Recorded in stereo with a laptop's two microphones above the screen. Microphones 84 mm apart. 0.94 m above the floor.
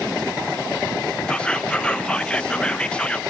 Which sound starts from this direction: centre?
Whispering, at 1.3 s.